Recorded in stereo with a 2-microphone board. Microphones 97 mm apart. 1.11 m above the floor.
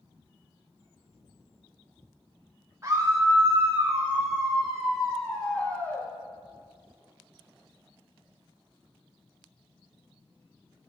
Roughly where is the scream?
Right.